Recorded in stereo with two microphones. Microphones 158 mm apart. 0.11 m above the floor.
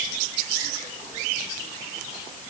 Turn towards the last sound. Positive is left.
No sound to turn to.